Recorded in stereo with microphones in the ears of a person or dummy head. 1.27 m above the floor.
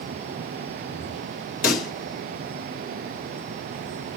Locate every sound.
1.6 s a pop: 50° left (ahead or behind), 1.1 m